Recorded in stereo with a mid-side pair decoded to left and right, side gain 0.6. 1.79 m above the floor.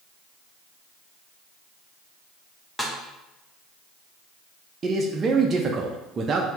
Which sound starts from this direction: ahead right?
A man speaking, at 4.8 s.